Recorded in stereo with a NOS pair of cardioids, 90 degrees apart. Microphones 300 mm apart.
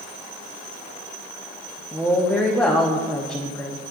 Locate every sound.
1.9 s a woman speaking: 5° left, 1.0 m